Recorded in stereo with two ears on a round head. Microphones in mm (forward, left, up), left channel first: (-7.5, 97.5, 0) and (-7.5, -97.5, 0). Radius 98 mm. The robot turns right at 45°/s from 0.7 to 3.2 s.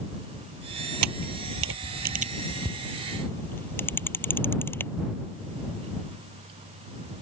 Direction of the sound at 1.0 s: 90° right.